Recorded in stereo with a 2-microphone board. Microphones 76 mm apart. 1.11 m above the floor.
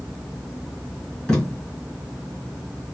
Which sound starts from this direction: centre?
Tape being pulled, at 1.3 s.